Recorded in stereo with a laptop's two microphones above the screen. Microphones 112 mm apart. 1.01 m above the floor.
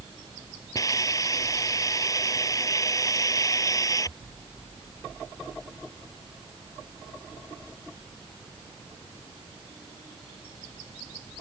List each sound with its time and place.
0.8 s a hiss: 30° left (ahead or behind)